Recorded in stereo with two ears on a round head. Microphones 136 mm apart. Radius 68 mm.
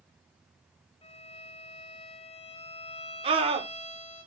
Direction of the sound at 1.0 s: 40° left (ahead or behind).